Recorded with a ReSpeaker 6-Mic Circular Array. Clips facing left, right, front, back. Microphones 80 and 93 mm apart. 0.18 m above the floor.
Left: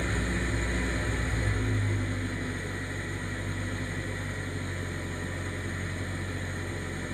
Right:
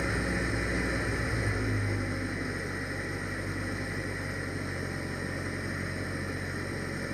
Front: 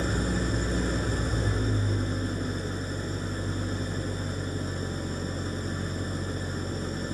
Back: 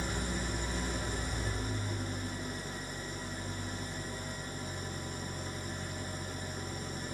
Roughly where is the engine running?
Ahead.